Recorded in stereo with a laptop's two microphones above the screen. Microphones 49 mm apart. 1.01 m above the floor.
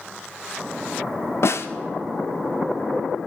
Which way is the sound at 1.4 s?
65° left (ahead or behind).